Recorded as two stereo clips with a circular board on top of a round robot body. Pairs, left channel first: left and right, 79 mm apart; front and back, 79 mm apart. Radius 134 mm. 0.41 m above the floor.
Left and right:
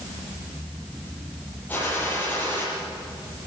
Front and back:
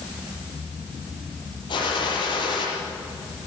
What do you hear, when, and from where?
1.7 s a gunshot: 20° left, 8.5 m